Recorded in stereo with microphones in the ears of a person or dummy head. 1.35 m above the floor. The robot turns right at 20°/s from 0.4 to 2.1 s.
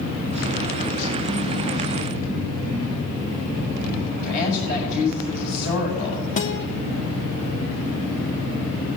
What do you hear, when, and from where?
4.2 s a woman speaking: 45° left (ahead or behind), 6.5 m
6.4 s a guitar: 45° left (ahead or behind), 1.2 m